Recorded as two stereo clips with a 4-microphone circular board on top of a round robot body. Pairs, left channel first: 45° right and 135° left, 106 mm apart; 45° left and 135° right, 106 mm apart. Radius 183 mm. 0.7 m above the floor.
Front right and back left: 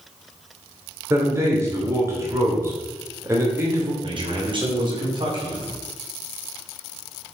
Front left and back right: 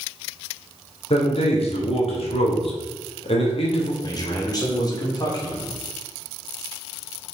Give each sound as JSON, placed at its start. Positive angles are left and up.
{"t": 1.1, "sound": "a man speaking", "azimuth_deg": 70, "distance_m": 2.5}
{"t": 4.0, "sound": "a man speaking", "azimuth_deg": 95, "distance_m": 3.0}